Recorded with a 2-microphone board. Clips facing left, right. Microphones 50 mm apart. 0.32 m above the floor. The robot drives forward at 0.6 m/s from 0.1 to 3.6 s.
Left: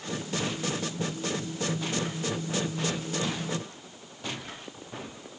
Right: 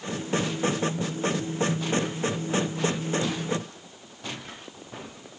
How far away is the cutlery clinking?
No cutlery clinking in this recording.